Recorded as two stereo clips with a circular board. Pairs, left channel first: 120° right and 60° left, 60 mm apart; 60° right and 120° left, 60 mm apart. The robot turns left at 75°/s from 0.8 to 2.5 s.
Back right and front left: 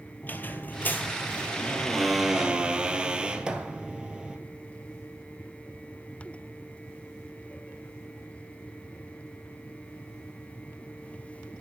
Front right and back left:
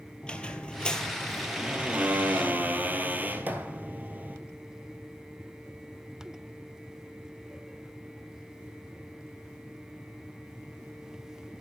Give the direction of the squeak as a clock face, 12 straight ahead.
4 o'clock.